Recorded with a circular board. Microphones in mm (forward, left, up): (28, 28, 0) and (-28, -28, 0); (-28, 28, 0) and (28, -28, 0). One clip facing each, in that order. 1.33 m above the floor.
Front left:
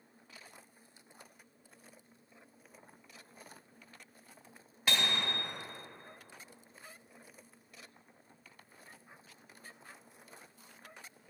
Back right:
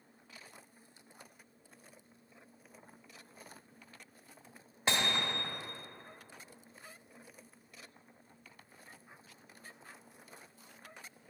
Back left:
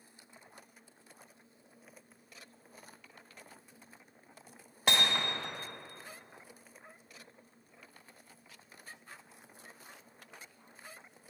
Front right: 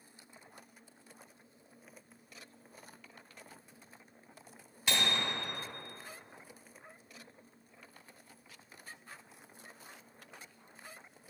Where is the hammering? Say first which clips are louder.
Back right 1 dB, back left 2 dB; 160° left, 1.6 m.